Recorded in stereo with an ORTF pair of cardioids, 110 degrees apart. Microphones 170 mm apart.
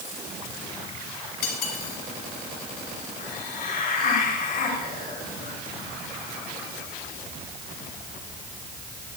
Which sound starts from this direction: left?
Cutlery clinking, at 1.4 s.